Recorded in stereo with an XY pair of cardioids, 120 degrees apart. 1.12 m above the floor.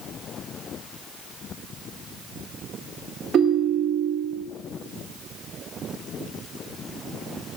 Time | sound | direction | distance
3.3 | a ringtone | 50° right | 1.6 m